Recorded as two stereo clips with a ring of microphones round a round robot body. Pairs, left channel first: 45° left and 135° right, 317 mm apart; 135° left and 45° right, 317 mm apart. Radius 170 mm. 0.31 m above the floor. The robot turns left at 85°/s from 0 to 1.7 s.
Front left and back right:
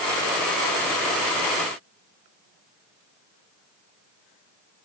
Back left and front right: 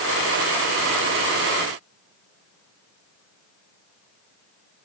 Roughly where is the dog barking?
I don't hear a dog barking.